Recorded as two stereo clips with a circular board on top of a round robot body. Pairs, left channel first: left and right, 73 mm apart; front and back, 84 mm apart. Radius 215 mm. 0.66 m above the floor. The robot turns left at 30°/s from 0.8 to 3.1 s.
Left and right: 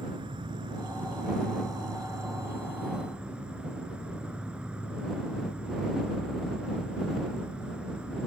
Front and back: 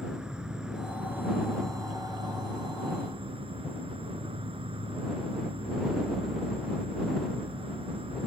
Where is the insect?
100° right; by 8.3 s 170° right.